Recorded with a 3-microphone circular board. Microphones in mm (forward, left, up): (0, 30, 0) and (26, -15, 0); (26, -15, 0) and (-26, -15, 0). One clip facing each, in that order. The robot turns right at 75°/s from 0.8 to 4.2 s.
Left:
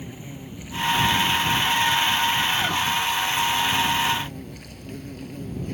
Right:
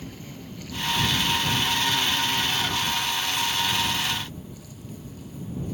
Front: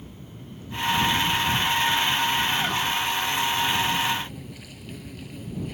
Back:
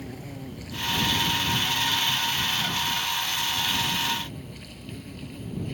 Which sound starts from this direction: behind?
An insect, at 0.0 s.